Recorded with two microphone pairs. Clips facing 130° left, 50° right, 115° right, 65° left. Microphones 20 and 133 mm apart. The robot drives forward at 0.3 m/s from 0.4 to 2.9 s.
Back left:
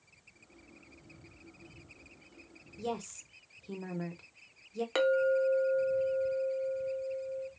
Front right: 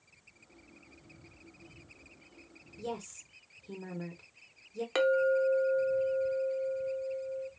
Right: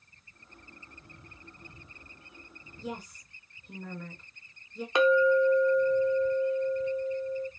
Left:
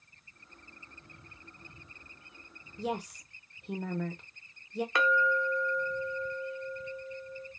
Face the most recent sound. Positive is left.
turn(degrees=-155)